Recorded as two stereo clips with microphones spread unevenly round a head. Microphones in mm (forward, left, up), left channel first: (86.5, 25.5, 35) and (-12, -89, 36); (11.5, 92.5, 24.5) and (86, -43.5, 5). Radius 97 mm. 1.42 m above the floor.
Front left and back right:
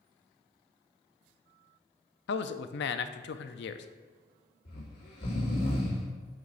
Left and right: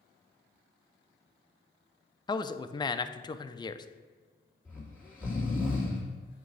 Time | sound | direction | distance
2.3 | a man speaking | 55° left | 0.5 m
4.7 | snoring | 40° left | 2.5 m